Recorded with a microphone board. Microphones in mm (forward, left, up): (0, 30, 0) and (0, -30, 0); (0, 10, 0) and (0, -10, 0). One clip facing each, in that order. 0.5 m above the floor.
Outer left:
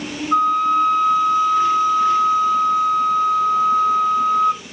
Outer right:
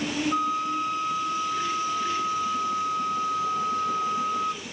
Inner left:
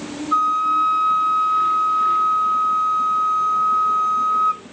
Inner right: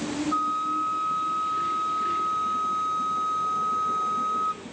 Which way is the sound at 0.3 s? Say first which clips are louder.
Outer left 14 dB, inner left 10 dB; 55° left (ahead or behind).